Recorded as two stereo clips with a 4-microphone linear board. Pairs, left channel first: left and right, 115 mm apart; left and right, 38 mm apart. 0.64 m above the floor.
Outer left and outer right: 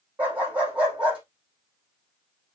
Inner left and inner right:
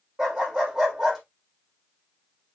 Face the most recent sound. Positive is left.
turn(degrees=-10)  # may be behind; listen again after turning